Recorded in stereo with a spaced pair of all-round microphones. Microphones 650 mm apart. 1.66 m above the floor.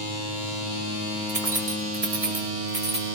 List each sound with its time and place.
1.3 s keys jangling: 60° right (ahead or behind), 1.4 m; by 3.0 s 55° right (ahead or behind), 2.5 m